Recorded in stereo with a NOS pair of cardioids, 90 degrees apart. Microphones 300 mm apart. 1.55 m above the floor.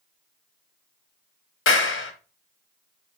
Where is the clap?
45° left, 1.0 m.